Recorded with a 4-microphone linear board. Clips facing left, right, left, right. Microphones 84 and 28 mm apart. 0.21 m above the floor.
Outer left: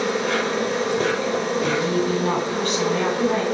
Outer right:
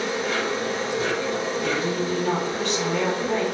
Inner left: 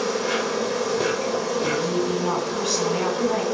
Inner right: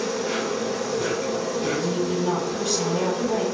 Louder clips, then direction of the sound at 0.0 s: Outer left 3 dB, inner left 2 dB; 60° left (ahead or behind).